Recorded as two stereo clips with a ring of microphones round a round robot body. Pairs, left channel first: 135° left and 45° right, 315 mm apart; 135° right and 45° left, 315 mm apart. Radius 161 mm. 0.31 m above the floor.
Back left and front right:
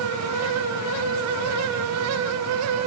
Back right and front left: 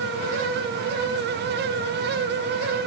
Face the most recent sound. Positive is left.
No sound to turn to.